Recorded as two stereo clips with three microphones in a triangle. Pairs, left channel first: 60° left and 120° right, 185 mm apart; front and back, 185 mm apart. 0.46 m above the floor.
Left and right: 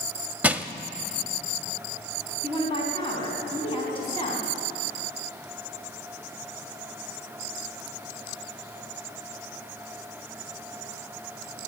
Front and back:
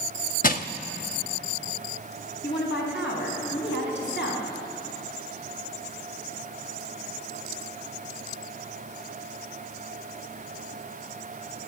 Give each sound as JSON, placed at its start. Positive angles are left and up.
{"t": 0.4, "sound": "crushing", "azimuth_deg": -35, "distance_m": 0.6}
{"t": 2.4, "sound": "a woman speaking", "azimuth_deg": 0, "distance_m": 4.0}